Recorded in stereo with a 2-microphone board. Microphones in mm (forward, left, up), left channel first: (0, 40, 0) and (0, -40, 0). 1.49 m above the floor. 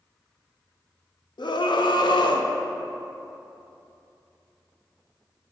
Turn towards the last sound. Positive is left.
turn(degrees=80)